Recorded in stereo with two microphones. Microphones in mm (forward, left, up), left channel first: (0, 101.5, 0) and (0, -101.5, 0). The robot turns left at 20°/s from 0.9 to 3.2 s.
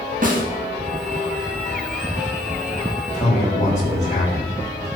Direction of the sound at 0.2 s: 45° right (ahead or behind).